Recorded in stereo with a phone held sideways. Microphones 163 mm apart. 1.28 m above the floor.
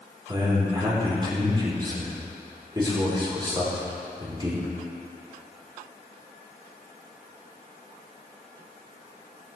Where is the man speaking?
25° right (ahead or behind), 4 m.